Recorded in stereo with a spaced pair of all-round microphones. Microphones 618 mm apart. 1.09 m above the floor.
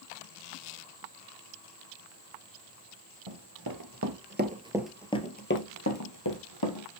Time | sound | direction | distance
3.3 | running footsteps | 45° right (ahead or behind) | 1.5 m